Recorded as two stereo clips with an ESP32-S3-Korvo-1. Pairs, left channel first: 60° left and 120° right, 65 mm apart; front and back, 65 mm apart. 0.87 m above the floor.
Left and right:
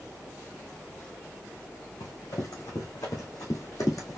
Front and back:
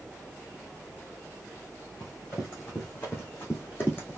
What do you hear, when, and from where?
2.0 s running footsteps: 50° left, 3.5 m